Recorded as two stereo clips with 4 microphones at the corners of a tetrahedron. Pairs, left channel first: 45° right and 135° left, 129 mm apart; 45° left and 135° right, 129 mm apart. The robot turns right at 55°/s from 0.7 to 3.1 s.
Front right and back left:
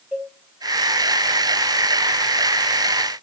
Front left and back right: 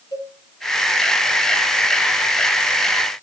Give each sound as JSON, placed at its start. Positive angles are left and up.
{"t": 0.1, "sound": "a cowbell", "azimuth_deg": 60, "distance_m": 1.1}